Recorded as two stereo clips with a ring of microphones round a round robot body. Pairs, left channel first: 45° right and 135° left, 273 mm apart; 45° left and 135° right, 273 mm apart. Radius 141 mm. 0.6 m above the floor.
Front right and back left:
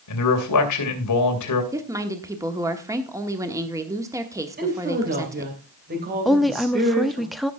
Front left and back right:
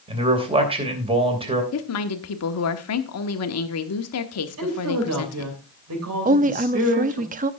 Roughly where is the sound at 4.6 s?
Behind.